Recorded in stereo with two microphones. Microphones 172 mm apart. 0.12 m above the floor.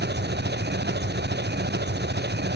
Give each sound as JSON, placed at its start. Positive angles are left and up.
{"t": 0.0, "sound": "an engine running", "side_deg": -80}